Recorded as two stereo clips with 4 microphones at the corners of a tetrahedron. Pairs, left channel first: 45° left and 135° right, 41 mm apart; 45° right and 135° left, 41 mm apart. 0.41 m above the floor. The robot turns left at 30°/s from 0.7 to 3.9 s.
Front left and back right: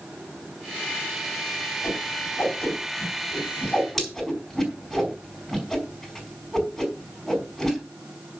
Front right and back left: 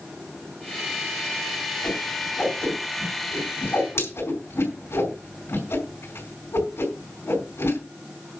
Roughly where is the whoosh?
Ahead.